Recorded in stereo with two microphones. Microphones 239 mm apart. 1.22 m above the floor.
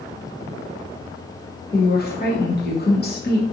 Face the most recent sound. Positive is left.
turn(degrees=40)  # may be behind; listen again after turning